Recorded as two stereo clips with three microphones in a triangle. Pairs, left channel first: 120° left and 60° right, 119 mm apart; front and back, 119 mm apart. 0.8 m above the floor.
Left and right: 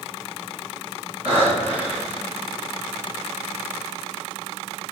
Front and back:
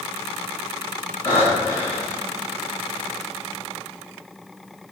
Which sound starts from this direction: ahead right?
Breathing, at 1.2 s.